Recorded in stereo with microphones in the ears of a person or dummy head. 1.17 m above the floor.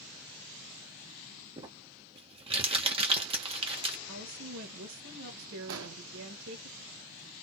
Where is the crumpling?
30° right (ahead or behind), 1.1 m.